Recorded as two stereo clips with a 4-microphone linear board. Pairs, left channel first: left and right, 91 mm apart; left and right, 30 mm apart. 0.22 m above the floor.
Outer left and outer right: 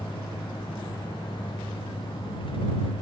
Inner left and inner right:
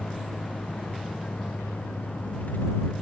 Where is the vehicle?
55° left (ahead or behind); by 3.0 s 65° left (ahead or behind).